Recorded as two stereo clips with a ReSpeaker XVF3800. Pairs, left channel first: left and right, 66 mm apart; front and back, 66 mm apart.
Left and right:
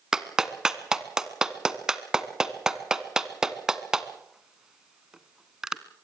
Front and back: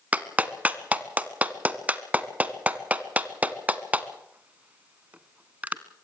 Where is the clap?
155° right, 0.8 m.